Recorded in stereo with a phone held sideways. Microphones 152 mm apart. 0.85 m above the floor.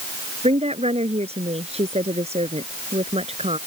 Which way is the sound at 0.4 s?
45° right (ahead or behind).